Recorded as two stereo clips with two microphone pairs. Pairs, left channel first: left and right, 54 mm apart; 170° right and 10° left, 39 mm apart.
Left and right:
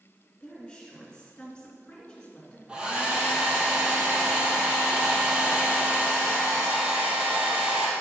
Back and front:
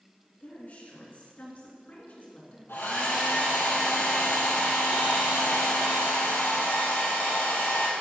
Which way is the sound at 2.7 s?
165° right.